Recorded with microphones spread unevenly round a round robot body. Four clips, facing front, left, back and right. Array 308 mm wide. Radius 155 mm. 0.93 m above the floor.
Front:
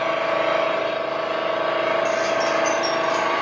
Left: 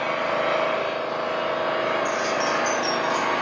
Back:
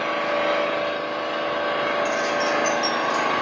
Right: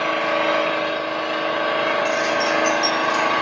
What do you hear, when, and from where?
0.0 s an engine running: 110° right, 1.5 m
2.0 s keys jangling: 55° right, 0.8 m